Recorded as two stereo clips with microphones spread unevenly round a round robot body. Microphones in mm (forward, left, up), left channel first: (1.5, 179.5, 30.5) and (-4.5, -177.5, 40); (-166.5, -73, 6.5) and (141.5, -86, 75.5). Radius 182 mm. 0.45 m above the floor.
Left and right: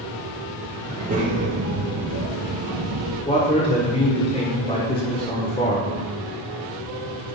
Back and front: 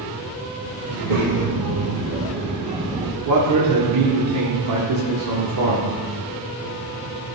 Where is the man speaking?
20° left, 1.4 m.